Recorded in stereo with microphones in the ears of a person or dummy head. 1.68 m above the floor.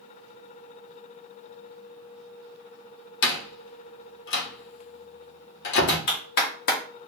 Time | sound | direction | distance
3.2 | a door slam | 60° left (ahead or behind) | 1.0 m
6.1 | a clap | 50° left (ahead or behind) | 1.3 m